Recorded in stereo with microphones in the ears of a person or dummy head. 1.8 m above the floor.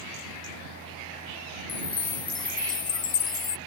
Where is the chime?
25° left (ahead or behind).